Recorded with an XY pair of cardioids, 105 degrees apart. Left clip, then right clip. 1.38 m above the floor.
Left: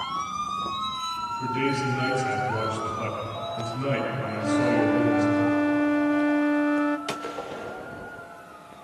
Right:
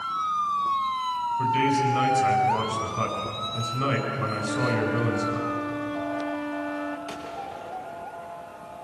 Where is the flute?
40° left, 0.7 m.